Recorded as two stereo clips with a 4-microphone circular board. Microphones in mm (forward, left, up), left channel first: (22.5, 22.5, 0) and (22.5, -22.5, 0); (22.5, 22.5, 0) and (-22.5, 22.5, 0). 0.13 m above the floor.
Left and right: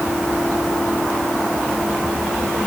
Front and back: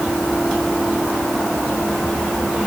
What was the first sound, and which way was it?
Only background noise.